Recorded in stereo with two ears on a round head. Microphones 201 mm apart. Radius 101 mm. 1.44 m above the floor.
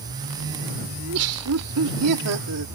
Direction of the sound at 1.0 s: 75° right (ahead or behind).